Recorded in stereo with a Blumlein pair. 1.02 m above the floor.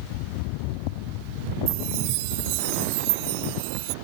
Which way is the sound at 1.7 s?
45° right.